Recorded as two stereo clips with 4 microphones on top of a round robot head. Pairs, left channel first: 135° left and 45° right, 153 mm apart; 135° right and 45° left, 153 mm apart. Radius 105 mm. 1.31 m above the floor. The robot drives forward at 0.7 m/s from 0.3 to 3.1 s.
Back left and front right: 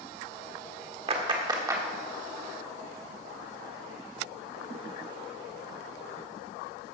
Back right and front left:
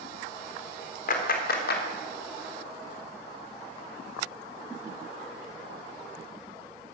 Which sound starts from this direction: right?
A clap, at 1.1 s.